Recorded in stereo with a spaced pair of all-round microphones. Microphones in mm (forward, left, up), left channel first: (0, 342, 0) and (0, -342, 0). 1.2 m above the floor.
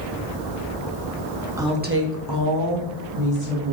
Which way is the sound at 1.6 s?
5° right (ahead or behind).